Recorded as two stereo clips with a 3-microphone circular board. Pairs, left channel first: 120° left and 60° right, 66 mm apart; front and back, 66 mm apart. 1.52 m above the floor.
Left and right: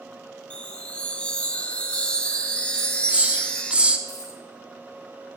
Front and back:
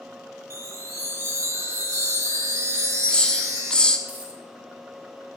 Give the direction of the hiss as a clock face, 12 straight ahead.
2 o'clock.